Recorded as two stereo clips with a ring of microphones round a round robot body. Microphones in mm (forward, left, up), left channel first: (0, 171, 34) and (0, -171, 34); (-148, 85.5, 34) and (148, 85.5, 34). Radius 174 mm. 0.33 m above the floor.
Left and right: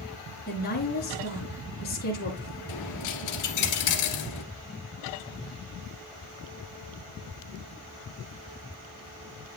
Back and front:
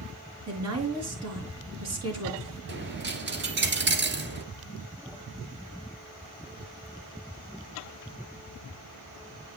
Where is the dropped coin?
50° left, 1.7 m.